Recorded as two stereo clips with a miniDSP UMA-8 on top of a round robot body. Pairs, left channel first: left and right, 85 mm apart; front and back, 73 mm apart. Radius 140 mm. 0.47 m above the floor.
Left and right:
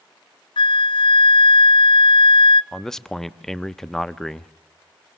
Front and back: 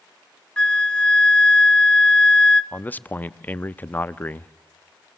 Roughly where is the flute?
Left.